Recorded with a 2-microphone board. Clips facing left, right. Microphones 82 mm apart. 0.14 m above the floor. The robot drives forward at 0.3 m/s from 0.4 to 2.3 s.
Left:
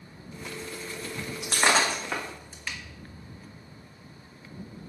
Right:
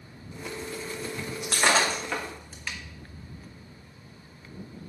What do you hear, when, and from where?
1.4 s breaking glass: 20° left (ahead or behind), 1.2 m; by 2.8 s 15° left (ahead or behind), 1.4 m